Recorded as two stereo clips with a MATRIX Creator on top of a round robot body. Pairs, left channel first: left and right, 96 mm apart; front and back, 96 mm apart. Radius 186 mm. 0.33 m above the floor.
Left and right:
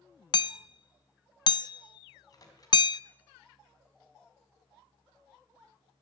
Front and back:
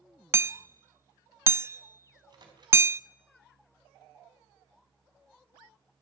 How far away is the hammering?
About 0.6 m.